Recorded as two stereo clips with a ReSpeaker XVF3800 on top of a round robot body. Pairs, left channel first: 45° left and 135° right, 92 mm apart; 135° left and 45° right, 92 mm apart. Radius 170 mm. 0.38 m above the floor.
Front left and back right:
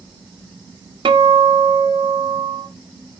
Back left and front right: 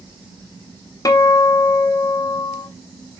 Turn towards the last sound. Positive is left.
turn(degrees=-170)